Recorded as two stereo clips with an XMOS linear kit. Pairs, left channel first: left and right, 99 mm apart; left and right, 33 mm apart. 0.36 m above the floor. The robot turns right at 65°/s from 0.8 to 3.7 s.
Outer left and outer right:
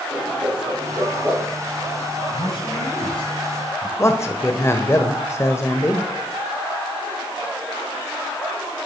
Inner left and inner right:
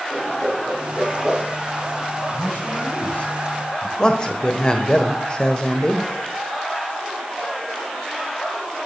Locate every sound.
0.1 s a whoosh: 45° right (ahead or behind), 7 m; by 1.5 s 5° right (ahead or behind), 7 m
2.3 s a man speaking: 60° left, 9.5 m; by 3.9 s 150° left, 9.5 m
4.0 s a man speaking: 30° left (ahead or behind), 1.2 m